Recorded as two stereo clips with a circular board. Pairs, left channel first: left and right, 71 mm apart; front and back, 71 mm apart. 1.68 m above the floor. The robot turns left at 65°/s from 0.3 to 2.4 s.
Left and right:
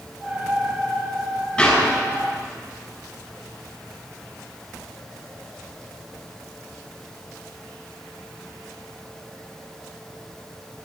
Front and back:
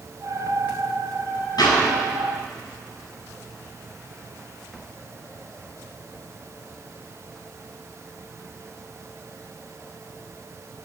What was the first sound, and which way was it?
A clap, 10° left.